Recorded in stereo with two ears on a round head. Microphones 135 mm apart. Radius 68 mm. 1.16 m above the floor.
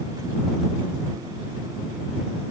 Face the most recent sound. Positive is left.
No sound to turn to.